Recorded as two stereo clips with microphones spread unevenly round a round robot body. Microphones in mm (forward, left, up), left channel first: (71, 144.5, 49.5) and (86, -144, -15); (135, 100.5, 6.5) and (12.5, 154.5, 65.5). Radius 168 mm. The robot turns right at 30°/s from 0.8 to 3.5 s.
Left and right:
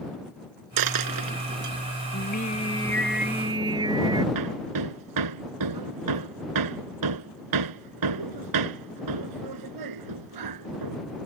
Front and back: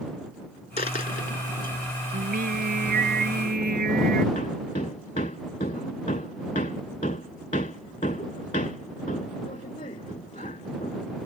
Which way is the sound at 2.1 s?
150° left.